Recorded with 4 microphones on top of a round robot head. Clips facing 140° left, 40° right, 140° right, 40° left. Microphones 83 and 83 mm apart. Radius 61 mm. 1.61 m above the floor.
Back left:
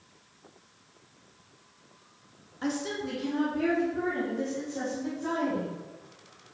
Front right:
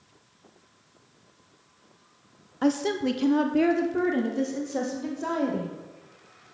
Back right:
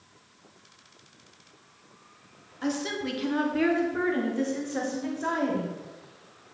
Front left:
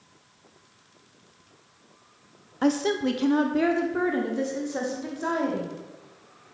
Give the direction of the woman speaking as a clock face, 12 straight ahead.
12 o'clock.